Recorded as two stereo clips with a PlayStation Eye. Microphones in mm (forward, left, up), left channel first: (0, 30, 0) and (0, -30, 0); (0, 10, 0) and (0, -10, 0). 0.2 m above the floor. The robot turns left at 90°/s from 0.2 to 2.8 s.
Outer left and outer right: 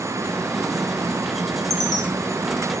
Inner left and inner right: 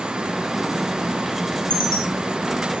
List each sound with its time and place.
1.7 s a chime: 80° left, 4.5 m; by 2.0 s 70° left (ahead or behind), 4.5 m